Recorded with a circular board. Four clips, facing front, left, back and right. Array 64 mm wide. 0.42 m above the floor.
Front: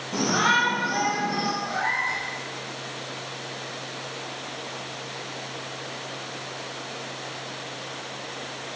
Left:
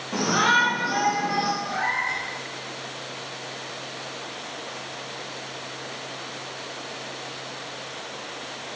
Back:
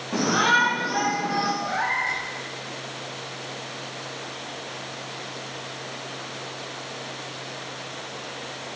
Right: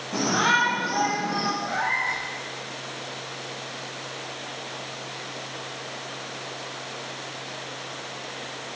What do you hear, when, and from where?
0.1 s a shout: 150° left, 1.2 m; by 1.5 s 125° left, 1.7 m
1.6 s a cat meowing: 160° right, 1.0 m